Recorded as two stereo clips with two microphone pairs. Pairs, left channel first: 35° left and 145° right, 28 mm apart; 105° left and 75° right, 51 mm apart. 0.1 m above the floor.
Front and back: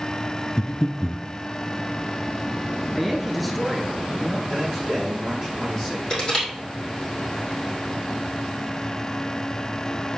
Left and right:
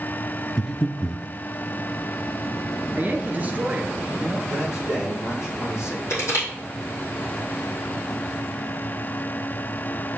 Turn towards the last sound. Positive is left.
turn(degrees=95)